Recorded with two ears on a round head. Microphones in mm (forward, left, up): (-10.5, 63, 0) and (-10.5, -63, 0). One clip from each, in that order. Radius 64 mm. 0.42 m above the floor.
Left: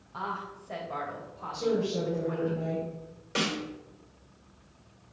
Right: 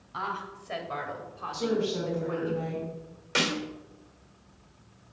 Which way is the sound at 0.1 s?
60° right (ahead or behind).